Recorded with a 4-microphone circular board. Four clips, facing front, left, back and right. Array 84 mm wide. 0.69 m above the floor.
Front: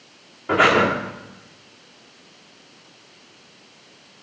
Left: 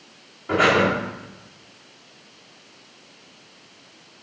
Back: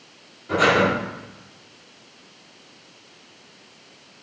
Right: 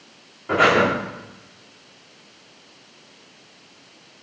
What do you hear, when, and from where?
0.5 s breathing: 5° right, 1.9 m